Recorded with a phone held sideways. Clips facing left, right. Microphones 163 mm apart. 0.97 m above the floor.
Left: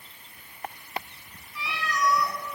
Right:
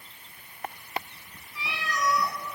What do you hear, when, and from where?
1.6 s a cat meowing: 25° right (ahead or behind), 1.8 m